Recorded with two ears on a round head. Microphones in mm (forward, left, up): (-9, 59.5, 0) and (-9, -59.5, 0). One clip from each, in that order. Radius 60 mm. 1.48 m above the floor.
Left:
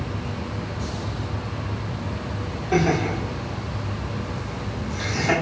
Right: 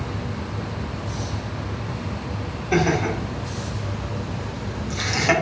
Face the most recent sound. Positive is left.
turn(degrees=-85)